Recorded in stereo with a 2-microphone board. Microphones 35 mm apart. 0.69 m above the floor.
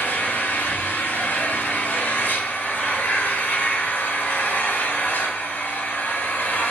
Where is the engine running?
70° left (ahead or behind), 0.9 m.